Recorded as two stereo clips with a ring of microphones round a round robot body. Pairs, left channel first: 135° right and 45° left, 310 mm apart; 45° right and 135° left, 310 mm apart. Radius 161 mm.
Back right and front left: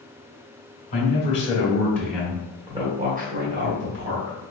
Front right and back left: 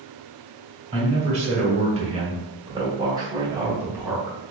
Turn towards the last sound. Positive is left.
turn(degrees=50)